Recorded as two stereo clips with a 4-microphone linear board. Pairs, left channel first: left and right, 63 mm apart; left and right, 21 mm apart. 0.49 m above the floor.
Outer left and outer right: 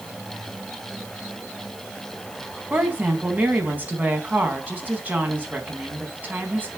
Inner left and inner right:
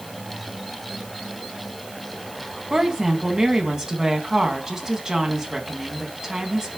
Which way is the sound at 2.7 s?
30° right (ahead or behind).